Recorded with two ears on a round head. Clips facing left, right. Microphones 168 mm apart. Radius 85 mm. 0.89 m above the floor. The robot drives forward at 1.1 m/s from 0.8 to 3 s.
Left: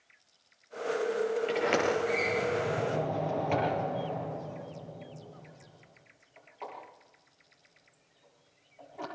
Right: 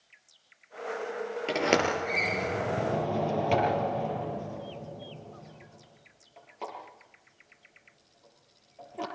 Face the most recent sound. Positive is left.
turn(degrees=-45)  # may be behind; listen again after turning